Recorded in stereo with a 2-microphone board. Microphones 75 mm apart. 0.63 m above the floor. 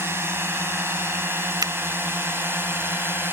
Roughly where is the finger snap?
Right.